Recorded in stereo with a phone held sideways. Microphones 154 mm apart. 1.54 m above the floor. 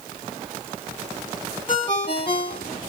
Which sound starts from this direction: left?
A ringtone, at 1.7 s.